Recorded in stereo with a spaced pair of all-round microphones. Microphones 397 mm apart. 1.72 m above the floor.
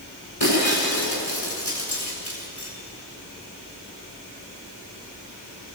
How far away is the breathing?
No breathing in this recording.